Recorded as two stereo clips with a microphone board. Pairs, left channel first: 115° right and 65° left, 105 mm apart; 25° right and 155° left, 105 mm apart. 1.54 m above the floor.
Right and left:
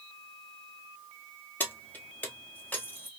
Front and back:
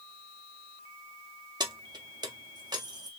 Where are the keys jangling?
Straight behind, 0.6 m.